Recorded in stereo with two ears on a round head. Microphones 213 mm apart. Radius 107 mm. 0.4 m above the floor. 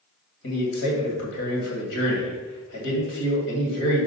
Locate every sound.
0.4 s a man speaking: 55° left (ahead or behind), 2.5 m